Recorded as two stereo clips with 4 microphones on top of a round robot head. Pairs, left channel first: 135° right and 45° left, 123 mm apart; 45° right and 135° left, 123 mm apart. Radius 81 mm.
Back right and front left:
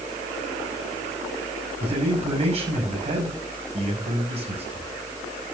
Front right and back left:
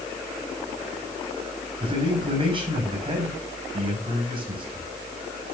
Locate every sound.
1.8 s a man speaking: 85° left, 5.5 m